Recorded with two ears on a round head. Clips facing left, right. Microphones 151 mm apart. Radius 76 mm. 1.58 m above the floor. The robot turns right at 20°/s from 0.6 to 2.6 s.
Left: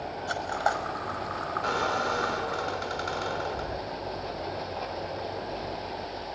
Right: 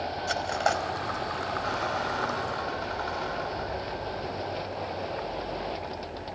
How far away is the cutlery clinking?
About 4.5 m.